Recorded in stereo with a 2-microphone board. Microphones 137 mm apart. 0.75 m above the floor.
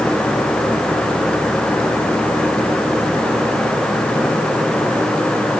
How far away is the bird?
No bird in this recording.